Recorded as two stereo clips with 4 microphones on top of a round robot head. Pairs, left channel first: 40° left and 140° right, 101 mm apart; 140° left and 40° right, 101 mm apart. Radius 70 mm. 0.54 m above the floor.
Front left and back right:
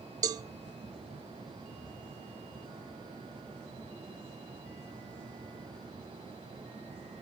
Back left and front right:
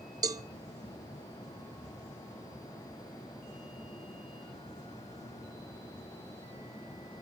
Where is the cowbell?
90° right, 0.7 m.